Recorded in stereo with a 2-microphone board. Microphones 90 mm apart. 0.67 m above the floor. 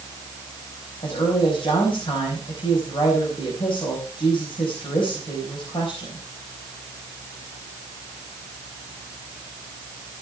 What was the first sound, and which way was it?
A woman speaking, 75° left (ahead or behind).